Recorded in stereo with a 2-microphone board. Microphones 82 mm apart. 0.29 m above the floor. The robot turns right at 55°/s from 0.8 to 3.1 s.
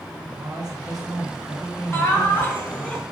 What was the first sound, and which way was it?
A man speaking, 60° right.